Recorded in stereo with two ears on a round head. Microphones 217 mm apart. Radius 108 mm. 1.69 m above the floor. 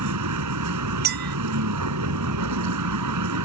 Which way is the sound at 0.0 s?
85° right.